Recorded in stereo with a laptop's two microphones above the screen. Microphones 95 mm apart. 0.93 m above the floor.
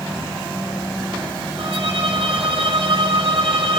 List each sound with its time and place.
1.6 s a violin: 70° right (ahead or behind), 6 m